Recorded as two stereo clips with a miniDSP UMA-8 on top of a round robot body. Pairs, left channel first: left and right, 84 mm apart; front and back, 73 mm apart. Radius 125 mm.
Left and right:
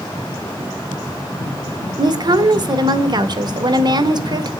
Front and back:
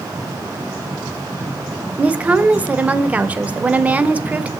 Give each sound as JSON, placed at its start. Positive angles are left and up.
{"t": 2.0, "sound": "a woman speaking", "azimuth_deg": -110, "distance_m": 1.7}